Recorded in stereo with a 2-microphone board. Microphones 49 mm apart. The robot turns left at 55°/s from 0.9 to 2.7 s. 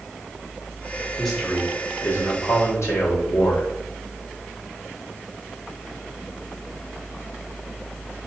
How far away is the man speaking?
About 1.2 m.